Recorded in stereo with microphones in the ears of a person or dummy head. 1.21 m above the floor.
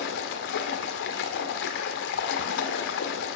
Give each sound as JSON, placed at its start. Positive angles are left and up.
{"t": 0.0, "sound": "running water", "side_deg": 65, "distance_m": 1.5}